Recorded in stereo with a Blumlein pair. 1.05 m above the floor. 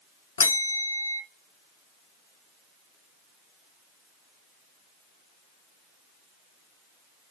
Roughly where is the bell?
Ahead left.